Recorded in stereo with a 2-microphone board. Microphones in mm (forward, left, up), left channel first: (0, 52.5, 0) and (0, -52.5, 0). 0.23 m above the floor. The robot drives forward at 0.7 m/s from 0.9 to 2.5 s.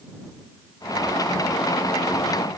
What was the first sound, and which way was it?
Only background noise.